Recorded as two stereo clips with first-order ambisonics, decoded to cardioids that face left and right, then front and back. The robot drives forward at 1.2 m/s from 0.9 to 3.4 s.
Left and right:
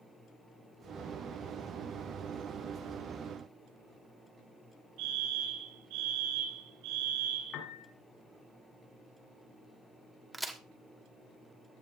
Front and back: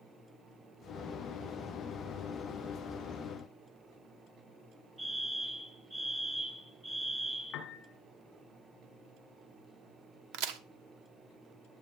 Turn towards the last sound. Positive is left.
turn(degrees=180)